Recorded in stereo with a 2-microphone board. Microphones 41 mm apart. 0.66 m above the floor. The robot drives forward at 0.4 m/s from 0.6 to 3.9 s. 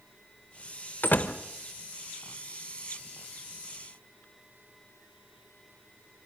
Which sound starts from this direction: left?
A door slam, at 1.0 s.